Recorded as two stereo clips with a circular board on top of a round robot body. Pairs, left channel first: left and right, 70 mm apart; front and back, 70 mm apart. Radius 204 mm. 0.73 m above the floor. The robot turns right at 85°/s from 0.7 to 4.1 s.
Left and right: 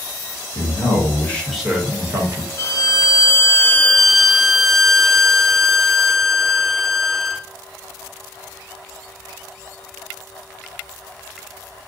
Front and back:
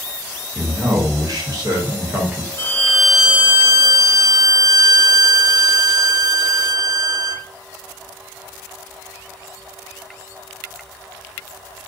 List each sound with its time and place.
0.6 s a man speaking: 110° left, 1.3 m; by 2.5 s 100° right, 1.3 m
2.6 s a violin: 50° left, 0.6 m; by 7.5 s 175° left, 0.6 m